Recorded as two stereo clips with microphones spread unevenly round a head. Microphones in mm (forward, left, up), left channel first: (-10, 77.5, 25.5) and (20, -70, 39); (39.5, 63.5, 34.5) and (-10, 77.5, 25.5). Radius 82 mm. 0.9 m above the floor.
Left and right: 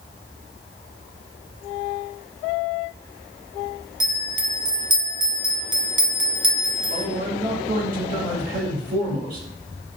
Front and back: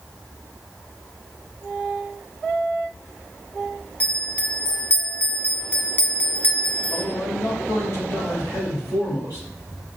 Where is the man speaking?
50° right, 1.6 m.